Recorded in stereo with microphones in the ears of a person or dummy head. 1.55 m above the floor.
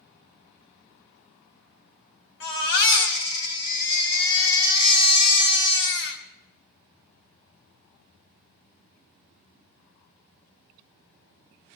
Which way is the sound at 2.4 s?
75° left (ahead or behind).